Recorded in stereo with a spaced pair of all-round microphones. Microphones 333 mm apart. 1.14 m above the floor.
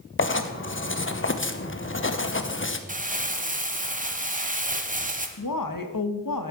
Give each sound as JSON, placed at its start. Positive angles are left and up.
{"t": 0.2, "sound": "writing", "side_deg": 35, "distance_m": 0.7}
{"t": 2.9, "sound": "crumpling", "side_deg": -25, "distance_m": 1.0}
{"t": 5.4, "sound": "a woman speaking", "side_deg": 75, "distance_m": 1.1}